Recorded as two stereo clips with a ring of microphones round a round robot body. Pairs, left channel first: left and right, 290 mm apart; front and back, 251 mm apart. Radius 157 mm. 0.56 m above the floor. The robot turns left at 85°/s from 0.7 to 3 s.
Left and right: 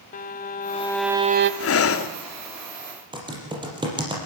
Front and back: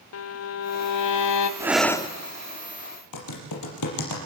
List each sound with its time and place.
0.1 s a violin: 25° left, 0.8 m; by 1.5 s 40° right, 0.8 m
1.6 s breathing: 105° left, 1.4 m; by 2.1 s 65° left, 1.4 m
3.1 s typing on a keyboard: 15° right, 5 m